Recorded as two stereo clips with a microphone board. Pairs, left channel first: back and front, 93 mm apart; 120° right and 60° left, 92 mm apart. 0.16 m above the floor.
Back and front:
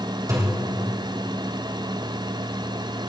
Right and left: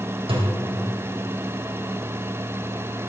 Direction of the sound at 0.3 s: 50° left.